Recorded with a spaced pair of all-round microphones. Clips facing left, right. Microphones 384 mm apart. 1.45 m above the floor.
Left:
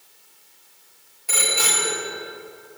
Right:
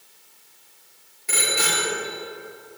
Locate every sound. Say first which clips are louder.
1.3 s a bicycle bell: right 1 dB; 35° right (ahead or behind), 3 m